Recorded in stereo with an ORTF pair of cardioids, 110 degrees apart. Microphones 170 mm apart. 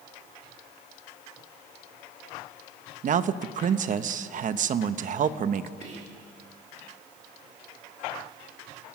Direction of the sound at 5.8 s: 40° right.